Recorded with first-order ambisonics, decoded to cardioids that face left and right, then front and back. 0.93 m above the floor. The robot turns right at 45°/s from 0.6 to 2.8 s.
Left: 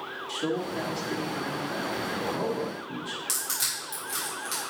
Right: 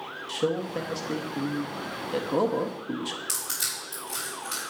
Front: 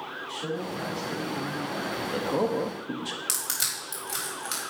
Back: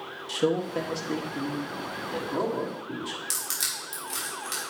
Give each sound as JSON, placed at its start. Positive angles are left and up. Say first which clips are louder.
{"t": 0.3, "sound": "a man speaking", "louder": "right 3 dB, back 8 dB", "azimuth_deg": -145, "distance_m": 1.4}
{"t": 3.3, "sound": "crushing", "louder": "left 4 dB, front 1 dB", "azimuth_deg": 5, "distance_m": 4.0}